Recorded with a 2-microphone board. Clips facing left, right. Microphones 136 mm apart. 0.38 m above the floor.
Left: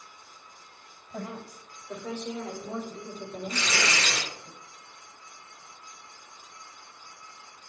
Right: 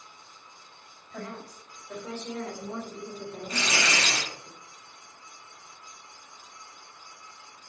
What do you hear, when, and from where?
1.1 s a woman speaking: 15° left (ahead or behind), 2.0 m; by 4.5 s centre (ahead or behind), 1.6 m
3.5 s tearing paper: 60° right (ahead or behind), 1.5 m